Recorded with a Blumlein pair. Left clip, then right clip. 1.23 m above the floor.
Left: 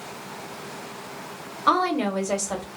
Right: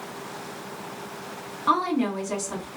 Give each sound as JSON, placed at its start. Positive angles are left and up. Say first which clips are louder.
{"t": 1.7, "sound": "a woman speaking", "louder": "left 2 dB", "azimuth_deg": 55, "distance_m": 1.3}